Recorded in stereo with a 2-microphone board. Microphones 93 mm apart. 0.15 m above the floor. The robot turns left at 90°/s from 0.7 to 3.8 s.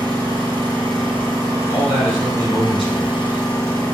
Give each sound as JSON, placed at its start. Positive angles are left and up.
{"t": 0.0, "sound": "an engine running", "azimuth_deg": -65, "distance_m": 1.9}
{"t": 1.7, "sound": "a man speaking", "azimuth_deg": 115, "distance_m": 1.4}